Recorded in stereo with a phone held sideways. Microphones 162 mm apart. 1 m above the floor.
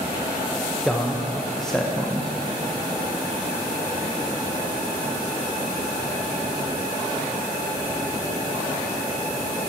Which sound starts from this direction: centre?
A man speaking, at 0.8 s.